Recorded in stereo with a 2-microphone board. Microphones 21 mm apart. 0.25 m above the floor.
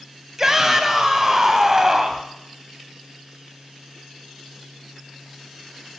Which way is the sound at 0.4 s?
25° right (ahead or behind).